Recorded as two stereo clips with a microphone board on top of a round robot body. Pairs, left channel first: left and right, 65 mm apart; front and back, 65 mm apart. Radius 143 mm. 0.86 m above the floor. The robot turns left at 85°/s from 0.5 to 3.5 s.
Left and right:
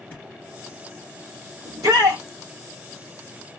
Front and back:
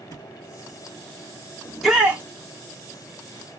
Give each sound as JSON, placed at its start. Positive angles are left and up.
{"t": 0.1, "sound": "a thud", "azimuth_deg": 25, "distance_m": 3.0}
{"t": 1.6, "sound": "a shout", "azimuth_deg": -75, "distance_m": 2.0}